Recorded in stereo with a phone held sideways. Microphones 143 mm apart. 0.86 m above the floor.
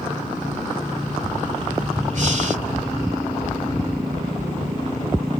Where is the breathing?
55° right (ahead or behind).